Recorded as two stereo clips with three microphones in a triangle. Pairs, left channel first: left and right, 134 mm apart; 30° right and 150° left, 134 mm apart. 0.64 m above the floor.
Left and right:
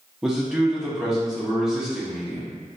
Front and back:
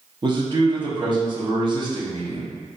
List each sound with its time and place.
0.2 s a man speaking: 170° right, 0.7 m